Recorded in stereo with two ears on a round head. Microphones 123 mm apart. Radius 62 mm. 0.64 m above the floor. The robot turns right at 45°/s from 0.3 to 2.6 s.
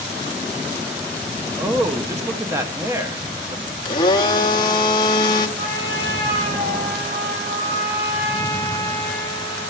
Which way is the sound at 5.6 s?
70° right (ahead or behind).